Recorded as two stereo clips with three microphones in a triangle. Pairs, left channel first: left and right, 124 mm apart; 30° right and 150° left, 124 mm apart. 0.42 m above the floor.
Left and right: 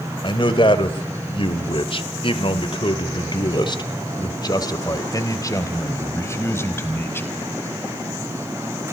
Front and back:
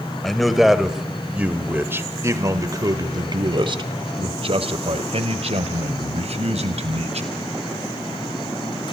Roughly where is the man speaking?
Ahead left.